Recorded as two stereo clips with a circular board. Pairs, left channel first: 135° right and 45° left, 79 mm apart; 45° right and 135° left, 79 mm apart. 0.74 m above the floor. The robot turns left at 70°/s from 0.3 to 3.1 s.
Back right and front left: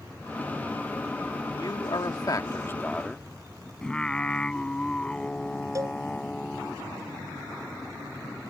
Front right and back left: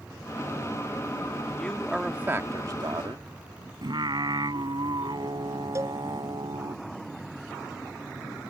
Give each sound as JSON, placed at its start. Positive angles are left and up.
{"t": 1.6, "sound": "a man speaking", "azimuth_deg": -115}
{"t": 3.8, "sound": "singing", "azimuth_deg": 145}
{"t": 5.8, "sound": "a cowbell", "azimuth_deg": 90}